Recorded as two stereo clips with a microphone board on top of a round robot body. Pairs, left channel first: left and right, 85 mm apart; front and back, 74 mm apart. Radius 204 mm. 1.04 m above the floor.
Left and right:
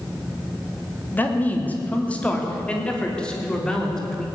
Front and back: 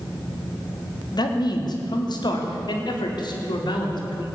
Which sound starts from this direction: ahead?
A man speaking, at 1.1 s.